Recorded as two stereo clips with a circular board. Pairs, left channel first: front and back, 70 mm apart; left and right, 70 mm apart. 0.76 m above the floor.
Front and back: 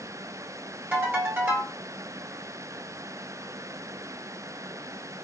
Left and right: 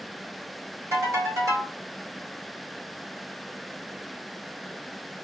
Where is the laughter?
No laughter in this recording.